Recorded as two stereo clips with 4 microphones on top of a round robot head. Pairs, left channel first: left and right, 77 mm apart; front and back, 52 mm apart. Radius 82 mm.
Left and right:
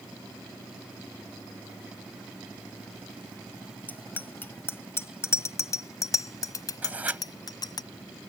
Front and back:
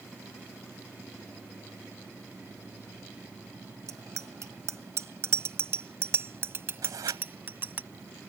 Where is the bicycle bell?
160° left; by 7.8 s 130° left.